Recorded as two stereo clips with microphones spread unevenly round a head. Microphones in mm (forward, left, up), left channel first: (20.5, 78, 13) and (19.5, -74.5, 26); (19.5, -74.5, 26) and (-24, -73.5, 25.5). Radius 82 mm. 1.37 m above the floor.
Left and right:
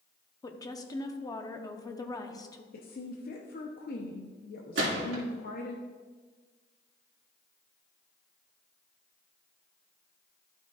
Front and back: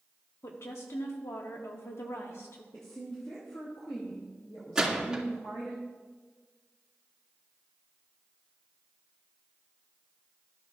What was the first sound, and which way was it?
A woman speaking, 25° left.